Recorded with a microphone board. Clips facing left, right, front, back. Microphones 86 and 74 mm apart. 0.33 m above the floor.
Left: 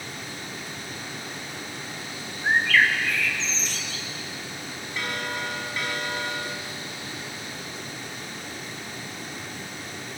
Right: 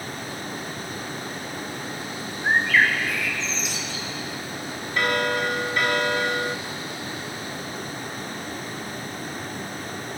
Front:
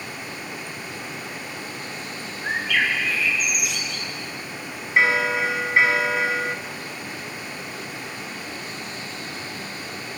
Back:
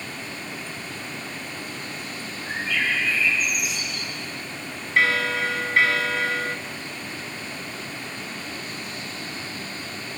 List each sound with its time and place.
2.4 s a bird: 10° right, 3.5 m
5.0 s a bell: 70° right, 0.7 m